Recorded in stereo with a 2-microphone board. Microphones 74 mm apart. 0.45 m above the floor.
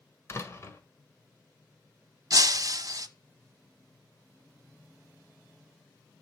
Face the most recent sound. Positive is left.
turn(degrees=-50)  # may be behind; listen again after turning